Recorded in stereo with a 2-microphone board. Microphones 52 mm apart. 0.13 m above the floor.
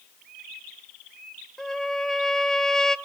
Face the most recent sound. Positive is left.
turn(degrees=10)  # may be behind; listen again after turning